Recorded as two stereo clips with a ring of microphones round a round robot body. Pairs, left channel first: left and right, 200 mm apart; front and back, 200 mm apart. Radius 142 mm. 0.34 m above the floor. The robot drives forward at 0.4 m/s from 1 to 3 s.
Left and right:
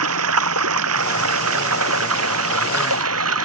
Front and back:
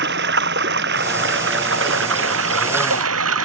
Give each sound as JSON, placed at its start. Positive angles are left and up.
{"t": 0.0, "sound": "running water", "azimuth_deg": -125}